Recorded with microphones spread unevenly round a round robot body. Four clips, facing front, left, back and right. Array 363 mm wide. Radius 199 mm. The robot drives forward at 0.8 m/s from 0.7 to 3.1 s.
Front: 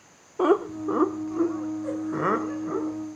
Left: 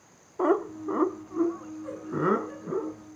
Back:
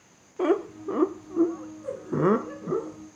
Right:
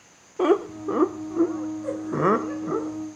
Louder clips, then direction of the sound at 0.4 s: Right 4 dB, front 3 dB; 60° right.